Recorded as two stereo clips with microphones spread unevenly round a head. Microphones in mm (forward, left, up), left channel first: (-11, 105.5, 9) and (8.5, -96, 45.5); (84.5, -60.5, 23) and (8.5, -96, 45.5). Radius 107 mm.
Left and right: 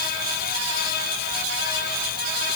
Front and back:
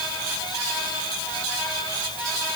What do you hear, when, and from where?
Only background noise.